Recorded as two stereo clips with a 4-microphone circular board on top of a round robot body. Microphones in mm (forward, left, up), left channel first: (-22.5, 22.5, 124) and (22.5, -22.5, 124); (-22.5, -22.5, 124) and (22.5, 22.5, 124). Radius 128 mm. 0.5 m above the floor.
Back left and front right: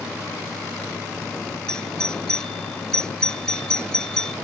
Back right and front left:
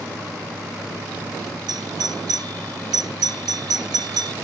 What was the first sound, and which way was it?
A doorbell, 55° left.